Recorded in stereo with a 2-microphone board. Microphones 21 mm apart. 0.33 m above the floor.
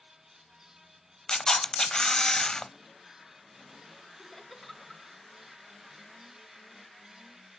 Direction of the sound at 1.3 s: 25° left (ahead or behind).